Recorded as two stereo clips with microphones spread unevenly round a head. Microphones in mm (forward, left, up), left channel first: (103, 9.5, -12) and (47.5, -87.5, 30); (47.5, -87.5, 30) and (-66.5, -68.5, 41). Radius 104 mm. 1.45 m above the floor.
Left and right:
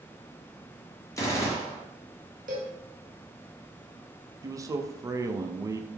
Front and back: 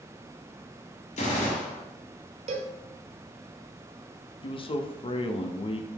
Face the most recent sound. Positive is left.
turn(degrees=-50)